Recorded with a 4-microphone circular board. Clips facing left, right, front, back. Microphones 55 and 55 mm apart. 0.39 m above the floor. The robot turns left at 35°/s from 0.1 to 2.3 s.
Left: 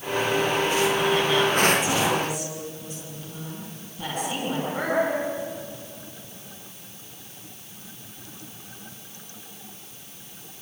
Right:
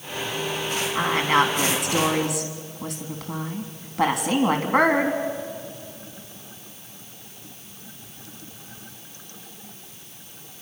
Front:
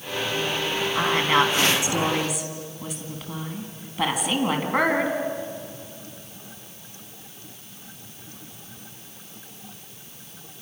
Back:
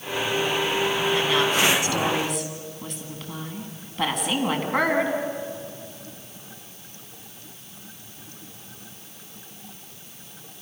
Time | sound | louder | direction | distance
0.9 | a woman speaking | right 1 dB, front 5 dB | 40° right | 3.5 m